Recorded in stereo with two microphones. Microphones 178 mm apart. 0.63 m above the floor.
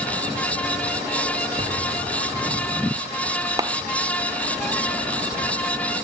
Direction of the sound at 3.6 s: 20° right (ahead or behind).